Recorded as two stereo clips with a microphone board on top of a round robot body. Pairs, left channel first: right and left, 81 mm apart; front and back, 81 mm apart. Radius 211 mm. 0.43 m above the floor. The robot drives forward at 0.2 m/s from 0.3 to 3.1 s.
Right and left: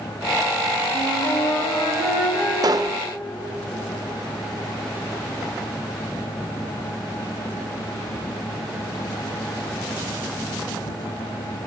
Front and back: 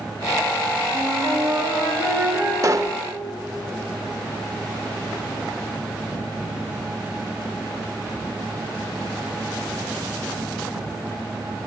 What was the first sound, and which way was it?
A flute, 130° right.